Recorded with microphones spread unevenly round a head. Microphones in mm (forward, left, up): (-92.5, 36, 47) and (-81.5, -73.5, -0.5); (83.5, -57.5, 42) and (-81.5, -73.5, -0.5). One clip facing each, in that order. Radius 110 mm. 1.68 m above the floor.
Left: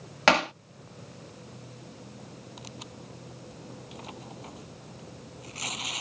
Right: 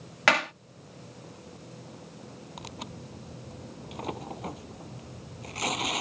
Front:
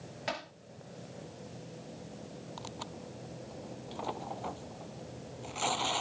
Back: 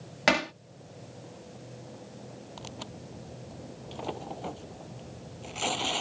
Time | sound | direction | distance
0.3 | hammering | 150° left | ?
2.6 | tearing paper | 110° right | ?